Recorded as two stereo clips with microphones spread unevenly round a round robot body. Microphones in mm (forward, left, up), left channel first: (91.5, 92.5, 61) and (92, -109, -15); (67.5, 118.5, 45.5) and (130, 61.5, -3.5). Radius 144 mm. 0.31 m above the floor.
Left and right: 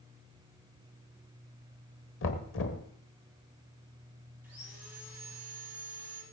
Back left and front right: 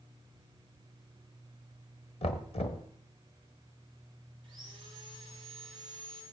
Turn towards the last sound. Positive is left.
turn(degrees=-45)